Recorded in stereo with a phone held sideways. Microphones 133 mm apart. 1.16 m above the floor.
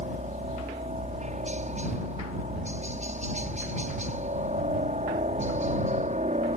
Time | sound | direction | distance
0.0 | a helicopter | 65° right (ahead or behind) | ?